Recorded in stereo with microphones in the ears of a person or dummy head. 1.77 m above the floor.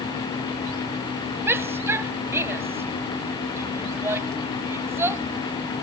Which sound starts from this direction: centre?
A shout, at 1.5 s.